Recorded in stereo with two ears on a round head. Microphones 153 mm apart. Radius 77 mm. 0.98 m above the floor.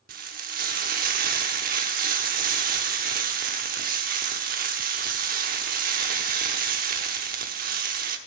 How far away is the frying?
About 0.9 m.